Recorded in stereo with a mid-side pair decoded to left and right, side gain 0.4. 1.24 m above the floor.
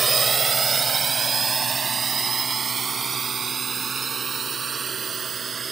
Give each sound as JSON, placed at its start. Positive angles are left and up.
{"t": 0.0, "sound": "a drone", "azimuth_deg": -40}